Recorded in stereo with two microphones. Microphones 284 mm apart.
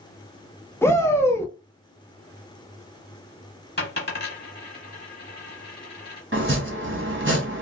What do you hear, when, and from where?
0.8 s a shout: 10° left (ahead or behind), 0.8 m
3.8 s a dropped coin: 35° left (ahead or behind), 1.2 m
6.3 s chopping: 45° right (ahead or behind), 0.8 m